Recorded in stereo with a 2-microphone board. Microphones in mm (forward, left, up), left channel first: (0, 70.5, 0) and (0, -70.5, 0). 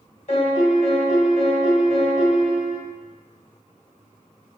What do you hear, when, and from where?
0.3 s a piano: 55° left (ahead or behind), 0.7 m